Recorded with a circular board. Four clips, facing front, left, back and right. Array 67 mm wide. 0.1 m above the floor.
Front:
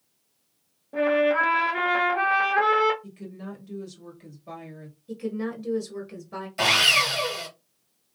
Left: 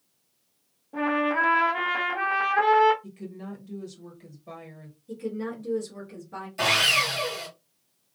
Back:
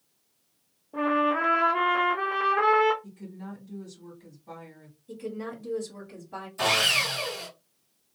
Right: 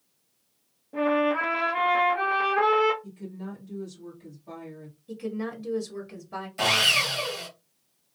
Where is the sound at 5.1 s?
35° right, 1.4 m.